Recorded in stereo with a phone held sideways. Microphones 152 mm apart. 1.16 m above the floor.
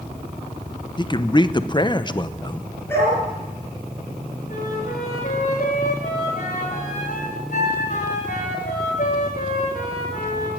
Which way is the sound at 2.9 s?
15° left (ahead or behind).